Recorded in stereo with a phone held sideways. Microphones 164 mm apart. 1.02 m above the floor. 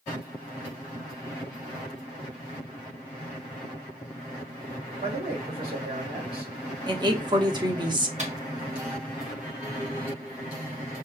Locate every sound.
5.0 s a man speaking: 80° right, 3 m
6.9 s a woman speaking: 30° right (ahead or behind), 0.8 m
8.2 s a microwave: 45° right (ahead or behind), 1.1 m